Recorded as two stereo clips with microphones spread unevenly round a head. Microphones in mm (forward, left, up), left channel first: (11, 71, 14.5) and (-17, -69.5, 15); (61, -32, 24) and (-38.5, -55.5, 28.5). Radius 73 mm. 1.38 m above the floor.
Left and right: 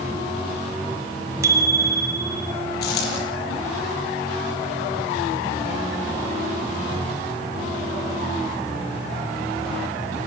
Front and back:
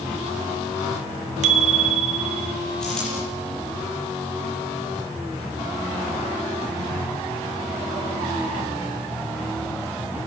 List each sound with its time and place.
1.4 s a bicycle bell: 170° right, 2.5 m
2.8 s a dropped coin: 100° left, 9.5 m